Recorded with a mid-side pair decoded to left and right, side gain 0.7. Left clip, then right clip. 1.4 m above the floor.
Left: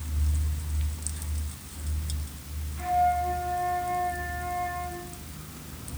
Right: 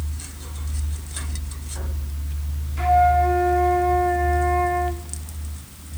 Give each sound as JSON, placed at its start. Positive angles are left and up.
{"t": 2.8, "sound": "a flute", "azimuth_deg": -45, "distance_m": 3.0}